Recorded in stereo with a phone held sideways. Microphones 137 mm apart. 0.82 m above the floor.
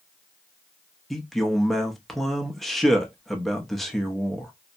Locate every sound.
1.1 s a man speaking: centre (ahead or behind), 0.6 m